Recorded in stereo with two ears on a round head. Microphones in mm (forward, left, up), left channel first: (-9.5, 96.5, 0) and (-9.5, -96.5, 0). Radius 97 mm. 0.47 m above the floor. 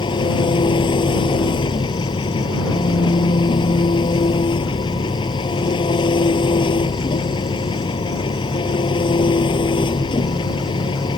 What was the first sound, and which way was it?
An engine running, 25° left (ahead or behind).